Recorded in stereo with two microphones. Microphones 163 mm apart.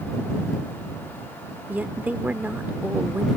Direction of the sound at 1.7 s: 10° right (ahead or behind).